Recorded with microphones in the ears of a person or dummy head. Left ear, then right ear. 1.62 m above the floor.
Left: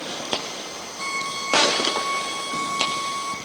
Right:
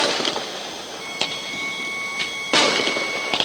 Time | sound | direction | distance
1.0 | a violin | 55° left (ahead or behind) | 3 m